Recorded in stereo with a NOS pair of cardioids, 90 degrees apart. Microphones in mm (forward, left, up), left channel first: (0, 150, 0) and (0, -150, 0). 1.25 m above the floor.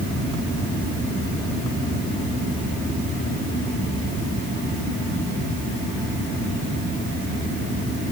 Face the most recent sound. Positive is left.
No sound to turn to.